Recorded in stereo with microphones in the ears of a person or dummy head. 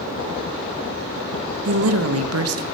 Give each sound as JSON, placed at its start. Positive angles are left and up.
{"t": 1.6, "sound": "a woman speaking", "side_deg": -80, "distance_m": 1.3}